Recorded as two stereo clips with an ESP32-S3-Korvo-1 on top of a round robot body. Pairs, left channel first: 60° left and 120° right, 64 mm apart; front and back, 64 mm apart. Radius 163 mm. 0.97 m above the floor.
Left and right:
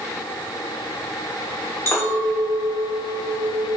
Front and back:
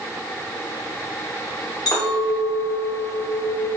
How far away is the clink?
About 2.5 m.